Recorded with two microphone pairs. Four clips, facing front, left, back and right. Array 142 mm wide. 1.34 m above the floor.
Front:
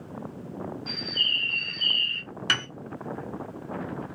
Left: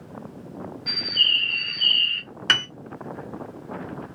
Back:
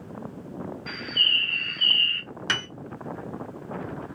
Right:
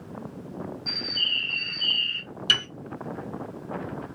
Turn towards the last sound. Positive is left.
turn(degrees=100)